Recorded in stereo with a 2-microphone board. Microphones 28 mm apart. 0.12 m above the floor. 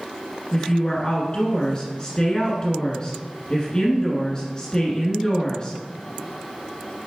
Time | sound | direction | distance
0.5 | a woman speaking | 25° left (ahead or behind) | 1.3 m